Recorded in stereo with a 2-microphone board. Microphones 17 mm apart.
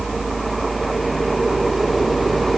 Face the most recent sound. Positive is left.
No sound to turn to.